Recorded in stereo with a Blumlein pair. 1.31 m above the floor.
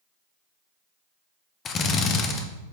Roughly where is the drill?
Ahead left.